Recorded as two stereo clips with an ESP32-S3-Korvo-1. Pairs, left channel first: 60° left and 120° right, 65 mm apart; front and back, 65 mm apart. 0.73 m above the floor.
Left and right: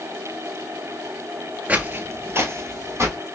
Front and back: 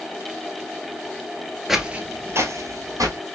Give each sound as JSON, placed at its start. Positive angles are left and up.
{"t": 1.7, "sound": "footsteps", "azimuth_deg": -95, "distance_m": 0.7}